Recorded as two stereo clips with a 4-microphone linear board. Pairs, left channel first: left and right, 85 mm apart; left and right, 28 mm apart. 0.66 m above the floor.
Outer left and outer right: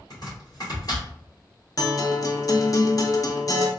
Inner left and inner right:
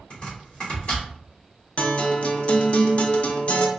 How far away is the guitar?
About 0.5 m.